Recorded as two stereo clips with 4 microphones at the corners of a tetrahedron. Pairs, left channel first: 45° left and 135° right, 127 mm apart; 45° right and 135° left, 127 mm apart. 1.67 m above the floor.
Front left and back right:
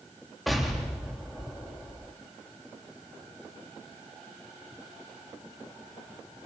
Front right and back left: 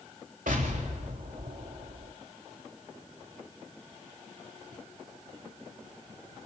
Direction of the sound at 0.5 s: 135° left.